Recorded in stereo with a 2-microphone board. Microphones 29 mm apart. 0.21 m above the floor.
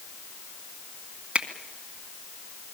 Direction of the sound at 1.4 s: 40° right (ahead or behind).